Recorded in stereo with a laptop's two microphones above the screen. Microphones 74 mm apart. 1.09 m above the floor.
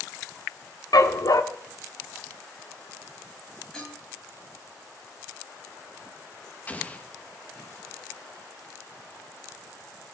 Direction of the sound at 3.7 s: 10° left (ahead or behind).